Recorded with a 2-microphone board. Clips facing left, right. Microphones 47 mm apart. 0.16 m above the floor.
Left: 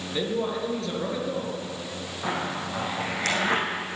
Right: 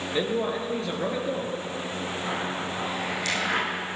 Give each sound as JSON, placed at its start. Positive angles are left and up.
{"t": 0.1, "sound": "a man speaking", "side_deg": -20, "distance_m": 2.5}
{"t": 2.2, "sound": "a zipper", "side_deg": 45, "distance_m": 4.5}